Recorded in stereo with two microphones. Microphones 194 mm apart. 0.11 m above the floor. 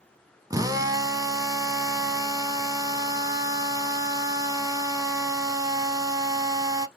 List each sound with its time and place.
0.5 s a drill: 20° right (ahead or behind), 0.7 m